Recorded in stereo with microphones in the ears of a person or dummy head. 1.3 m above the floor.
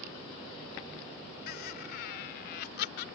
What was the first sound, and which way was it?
Laughter, 60° left (ahead or behind).